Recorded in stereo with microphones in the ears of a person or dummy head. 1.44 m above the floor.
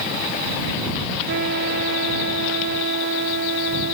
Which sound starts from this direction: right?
A trumpet, at 1.3 s.